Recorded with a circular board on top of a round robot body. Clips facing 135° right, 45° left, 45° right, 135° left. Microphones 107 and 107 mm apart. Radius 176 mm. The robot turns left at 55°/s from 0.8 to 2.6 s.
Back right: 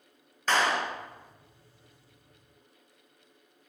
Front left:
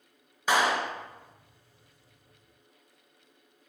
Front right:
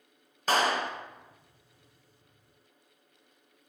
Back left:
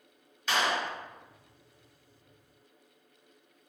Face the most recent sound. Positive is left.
turn(degrees=-125)